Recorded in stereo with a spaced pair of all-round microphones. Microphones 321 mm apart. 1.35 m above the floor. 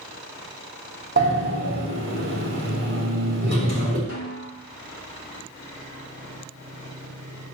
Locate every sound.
1.2 s a sliding door: 35° right (ahead or behind), 3 m
4.1 s a snare drum: 45° left (ahead or behind), 2.5 m